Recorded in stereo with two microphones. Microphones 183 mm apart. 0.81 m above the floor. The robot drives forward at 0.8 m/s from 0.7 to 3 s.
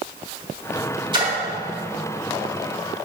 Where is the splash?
25° right (ahead or behind), 2.5 m.